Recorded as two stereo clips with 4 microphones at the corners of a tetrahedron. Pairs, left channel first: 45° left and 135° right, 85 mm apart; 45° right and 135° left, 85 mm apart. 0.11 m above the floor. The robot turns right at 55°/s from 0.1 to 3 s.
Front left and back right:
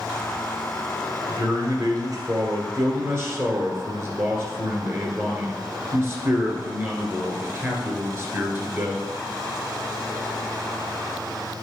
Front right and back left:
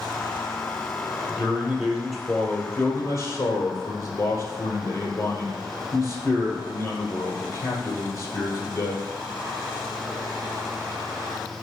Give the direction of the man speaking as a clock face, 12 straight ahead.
6 o'clock.